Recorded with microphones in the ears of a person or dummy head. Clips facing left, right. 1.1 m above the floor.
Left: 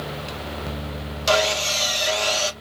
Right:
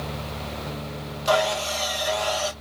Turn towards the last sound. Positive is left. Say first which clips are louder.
# left 1 dB
turn(degrees=35)  # may be behind; listen again after turning